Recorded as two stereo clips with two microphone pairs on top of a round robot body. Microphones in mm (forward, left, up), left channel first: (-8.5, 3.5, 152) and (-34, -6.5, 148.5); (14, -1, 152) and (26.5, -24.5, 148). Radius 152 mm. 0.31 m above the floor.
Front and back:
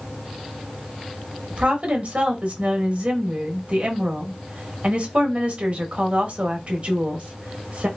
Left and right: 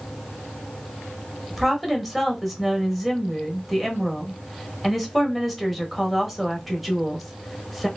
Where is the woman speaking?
145° right, 1.3 m.